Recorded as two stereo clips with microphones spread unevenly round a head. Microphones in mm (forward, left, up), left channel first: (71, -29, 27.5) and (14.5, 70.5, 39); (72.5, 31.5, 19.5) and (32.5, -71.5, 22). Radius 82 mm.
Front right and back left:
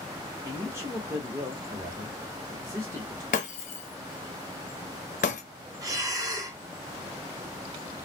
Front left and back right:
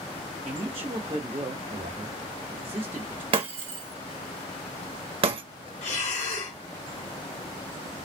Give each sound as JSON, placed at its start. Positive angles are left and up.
{"t": 0.4, "sound": "a man speaking", "azimuth_deg": -170, "distance_m": 1.3}
{"t": 3.3, "sound": "breaking glass", "azimuth_deg": -90, "distance_m": 1.0}
{"t": 5.8, "sound": "breathing", "azimuth_deg": 70, "distance_m": 1.5}